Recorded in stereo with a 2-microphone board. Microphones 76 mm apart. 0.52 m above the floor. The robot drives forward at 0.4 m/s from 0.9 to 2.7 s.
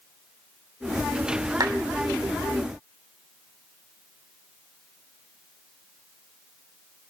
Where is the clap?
55° right (ahead or behind), 1.5 m.